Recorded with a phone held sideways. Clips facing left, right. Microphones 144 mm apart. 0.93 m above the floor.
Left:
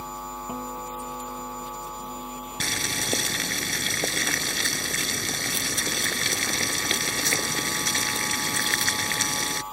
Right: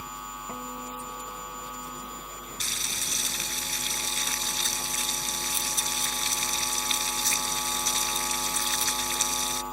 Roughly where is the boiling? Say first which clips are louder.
Left 9 dB; left.